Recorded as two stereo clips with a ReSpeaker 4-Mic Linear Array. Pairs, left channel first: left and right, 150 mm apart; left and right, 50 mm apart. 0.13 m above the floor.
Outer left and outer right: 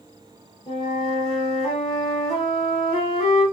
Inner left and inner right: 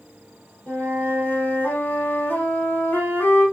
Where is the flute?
35° left (ahead or behind), 3 m.